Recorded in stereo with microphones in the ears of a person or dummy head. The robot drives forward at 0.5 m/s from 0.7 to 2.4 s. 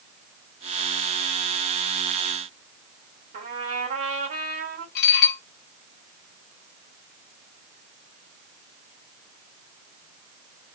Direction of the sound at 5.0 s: 50° left (ahead or behind).